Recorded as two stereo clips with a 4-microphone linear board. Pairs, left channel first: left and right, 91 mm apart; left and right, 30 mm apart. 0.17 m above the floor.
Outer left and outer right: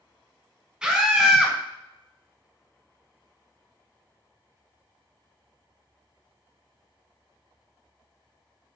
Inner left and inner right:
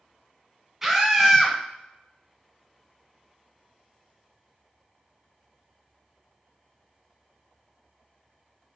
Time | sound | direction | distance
0.8 | a scream | 10° right (ahead or behind) | 1.2 m